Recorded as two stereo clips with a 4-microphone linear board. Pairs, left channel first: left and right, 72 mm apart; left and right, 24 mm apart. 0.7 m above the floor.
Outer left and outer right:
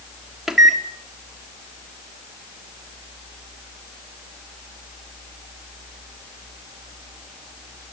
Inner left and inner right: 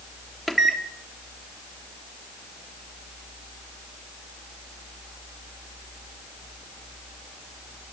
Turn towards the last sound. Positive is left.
turn(degrees=-5)  # may be behind; listen again after turning